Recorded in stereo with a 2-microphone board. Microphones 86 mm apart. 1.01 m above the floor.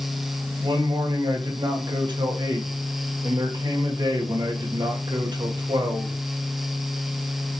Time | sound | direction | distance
0.6 | a man speaking | 60° right (ahead or behind) | 1.6 m